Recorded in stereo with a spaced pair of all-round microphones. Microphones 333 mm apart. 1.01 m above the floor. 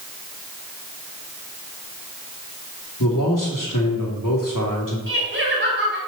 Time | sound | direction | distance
3.0 | a man speaking | 70° left (ahead or behind) | 2.5 m
5.1 | laughter | 35° right (ahead or behind) | 4 m